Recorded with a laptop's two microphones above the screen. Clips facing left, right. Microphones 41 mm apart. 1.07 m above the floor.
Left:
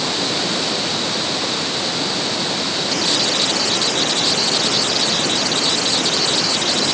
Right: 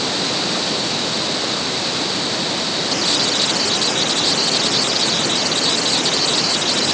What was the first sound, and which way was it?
Only background noise.